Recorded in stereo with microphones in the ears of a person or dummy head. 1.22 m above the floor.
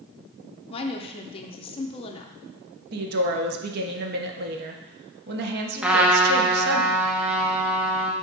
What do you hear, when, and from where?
0.7 s a woman speaking: 30° left (ahead or behind), 0.8 m
2.9 s a woman speaking: 55° right (ahead or behind), 1.1 m
5.8 s a trumpet: 5° right (ahead or behind), 0.7 m